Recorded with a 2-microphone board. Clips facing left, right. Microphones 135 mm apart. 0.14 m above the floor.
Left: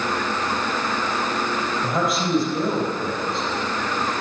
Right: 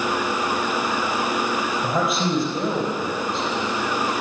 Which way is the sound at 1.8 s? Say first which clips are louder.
Even; 20° right (ahead or behind).